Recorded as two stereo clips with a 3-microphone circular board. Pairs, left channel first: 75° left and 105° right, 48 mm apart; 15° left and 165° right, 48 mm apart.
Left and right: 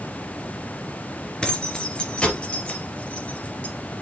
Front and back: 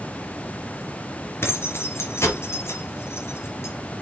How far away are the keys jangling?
About 2.5 m.